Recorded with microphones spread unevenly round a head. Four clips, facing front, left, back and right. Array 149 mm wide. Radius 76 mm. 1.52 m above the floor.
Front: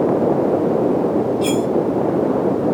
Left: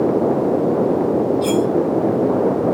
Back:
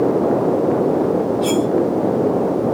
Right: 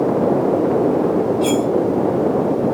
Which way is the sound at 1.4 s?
Straight ahead.